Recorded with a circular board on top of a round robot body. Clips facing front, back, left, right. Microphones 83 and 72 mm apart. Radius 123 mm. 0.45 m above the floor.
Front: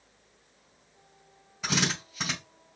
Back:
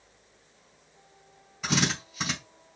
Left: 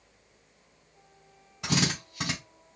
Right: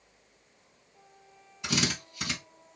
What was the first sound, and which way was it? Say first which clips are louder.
A drill: back 2 dB, left 2 dB; 90° left.